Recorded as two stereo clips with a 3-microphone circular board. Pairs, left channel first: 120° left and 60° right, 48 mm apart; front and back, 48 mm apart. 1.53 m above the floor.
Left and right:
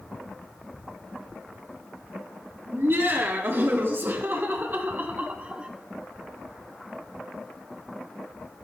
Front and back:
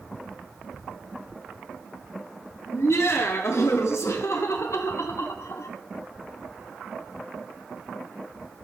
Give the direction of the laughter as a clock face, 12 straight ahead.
1 o'clock.